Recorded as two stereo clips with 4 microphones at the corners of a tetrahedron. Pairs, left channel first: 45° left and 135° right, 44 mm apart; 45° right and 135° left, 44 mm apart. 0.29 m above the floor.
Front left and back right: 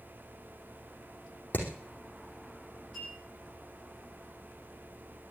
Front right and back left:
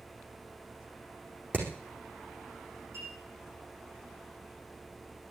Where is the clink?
140° left, 9 m.